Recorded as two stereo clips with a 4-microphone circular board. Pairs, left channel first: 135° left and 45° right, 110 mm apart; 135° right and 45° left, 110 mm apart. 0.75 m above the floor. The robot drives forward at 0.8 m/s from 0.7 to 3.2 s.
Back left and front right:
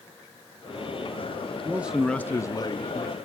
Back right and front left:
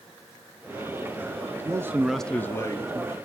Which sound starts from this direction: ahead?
A man speaking, at 1.6 s.